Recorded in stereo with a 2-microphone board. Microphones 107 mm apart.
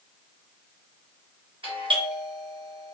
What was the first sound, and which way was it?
A doorbell, 50° right (ahead or behind).